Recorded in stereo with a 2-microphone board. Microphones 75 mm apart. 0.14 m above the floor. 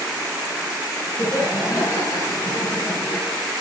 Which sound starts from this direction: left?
Laughter, at 1.2 s.